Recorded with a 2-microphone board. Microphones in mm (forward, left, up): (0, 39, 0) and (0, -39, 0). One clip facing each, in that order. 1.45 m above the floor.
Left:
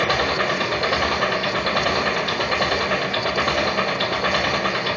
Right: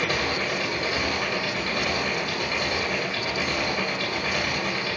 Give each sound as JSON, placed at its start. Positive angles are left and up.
{"t": 0.0, "sound": "an engine running", "side_deg": 75, "distance_m": 3.0}